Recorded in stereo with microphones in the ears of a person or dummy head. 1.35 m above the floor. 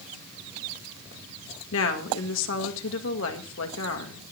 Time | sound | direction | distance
1.7 | a woman speaking | 60° left (ahead or behind) | 2.5 m